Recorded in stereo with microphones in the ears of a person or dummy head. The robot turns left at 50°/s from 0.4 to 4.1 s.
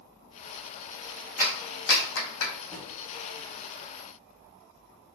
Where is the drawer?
10° left (ahead or behind), 1.6 m; by 2.9 s 5° left (ahead or behind), 1.6 m.